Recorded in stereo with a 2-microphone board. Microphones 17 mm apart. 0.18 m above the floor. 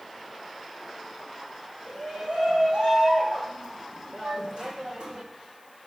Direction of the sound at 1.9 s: 80° right.